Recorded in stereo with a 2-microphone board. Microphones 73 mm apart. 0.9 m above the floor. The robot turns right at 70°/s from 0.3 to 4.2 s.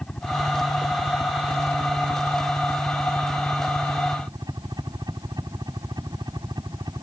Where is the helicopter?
10° left; by 7.0 s 80° right.